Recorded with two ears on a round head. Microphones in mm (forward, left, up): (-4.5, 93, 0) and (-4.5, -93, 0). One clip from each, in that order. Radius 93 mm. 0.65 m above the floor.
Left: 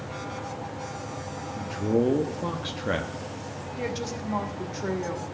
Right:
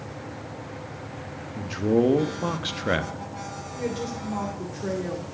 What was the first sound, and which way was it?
A man speaking, 15° right (ahead or behind).